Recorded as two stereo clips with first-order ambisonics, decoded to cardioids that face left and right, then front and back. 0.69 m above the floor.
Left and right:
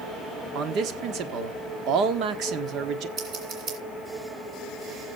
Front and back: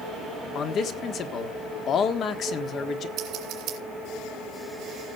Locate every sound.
0.6 s a man speaking: 50° right, 1.2 m
3.2 s scissors: 135° right, 3 m